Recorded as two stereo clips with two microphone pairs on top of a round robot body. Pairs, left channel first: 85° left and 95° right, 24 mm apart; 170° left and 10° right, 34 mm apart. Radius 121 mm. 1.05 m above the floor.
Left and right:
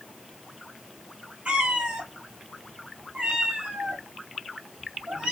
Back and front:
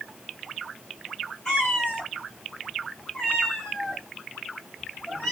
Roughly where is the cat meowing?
Right.